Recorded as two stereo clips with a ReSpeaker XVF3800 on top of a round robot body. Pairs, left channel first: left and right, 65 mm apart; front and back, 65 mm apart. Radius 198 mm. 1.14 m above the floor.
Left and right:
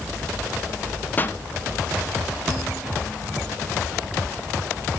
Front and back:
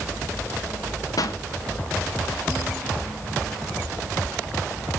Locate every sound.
1.2 s a pop: 25° left, 1.4 m